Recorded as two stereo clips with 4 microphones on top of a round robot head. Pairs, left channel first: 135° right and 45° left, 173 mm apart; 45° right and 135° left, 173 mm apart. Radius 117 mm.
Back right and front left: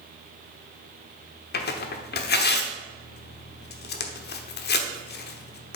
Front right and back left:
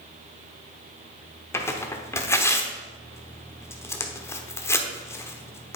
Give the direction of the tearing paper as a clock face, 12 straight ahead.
4 o'clock.